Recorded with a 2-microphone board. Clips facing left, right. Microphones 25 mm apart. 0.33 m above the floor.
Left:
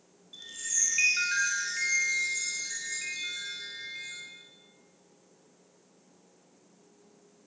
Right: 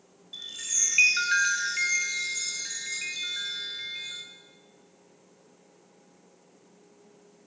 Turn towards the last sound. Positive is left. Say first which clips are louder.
# right 3 dB
turn(degrees=-30)  # may be behind; listen again after turning